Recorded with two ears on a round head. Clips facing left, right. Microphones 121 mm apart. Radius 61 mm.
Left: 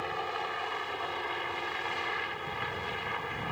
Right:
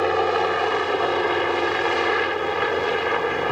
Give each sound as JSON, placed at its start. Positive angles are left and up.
{"t": 0.0, "sound": "a helicopter", "side_deg": -70}